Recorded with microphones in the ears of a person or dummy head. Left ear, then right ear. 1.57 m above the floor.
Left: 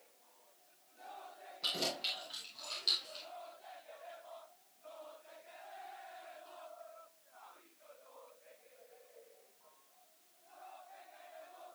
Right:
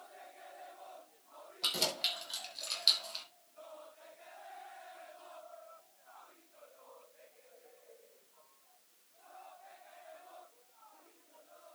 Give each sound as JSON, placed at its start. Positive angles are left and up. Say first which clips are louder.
{"t": 1.6, "sound": "keys jangling", "louder": "right 3 dB", "side_deg": -25, "distance_m": 4.0}